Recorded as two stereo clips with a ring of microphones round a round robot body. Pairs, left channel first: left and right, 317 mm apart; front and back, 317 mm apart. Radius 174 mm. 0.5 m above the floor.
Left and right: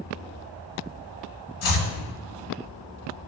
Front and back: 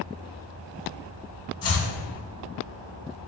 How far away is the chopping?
About 2 m.